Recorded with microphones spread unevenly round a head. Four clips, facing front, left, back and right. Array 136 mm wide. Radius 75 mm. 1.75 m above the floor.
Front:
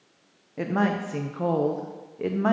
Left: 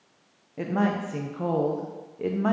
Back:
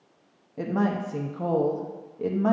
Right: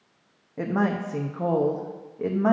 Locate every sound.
0.6 s a woman speaking: 30° right, 0.6 m